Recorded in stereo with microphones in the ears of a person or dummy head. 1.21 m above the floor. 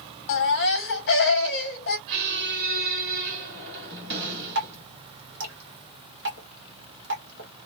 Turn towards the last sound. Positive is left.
turn(degrees=-55)  # may be behind; listen again after turning